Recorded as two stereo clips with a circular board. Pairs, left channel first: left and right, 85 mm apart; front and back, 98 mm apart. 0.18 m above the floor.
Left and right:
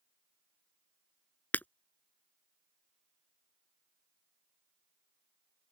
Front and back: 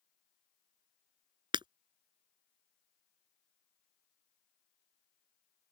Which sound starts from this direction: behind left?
Breaking glass, at 1.5 s.